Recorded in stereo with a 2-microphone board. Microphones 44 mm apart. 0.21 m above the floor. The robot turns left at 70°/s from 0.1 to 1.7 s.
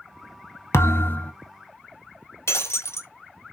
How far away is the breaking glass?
About 0.9 m.